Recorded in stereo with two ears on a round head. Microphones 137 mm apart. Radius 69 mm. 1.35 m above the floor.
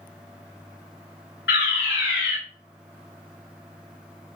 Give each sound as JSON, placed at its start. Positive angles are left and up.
{"t": 1.5, "sound": "a fire alarm", "side_deg": 80, "distance_m": 6.0}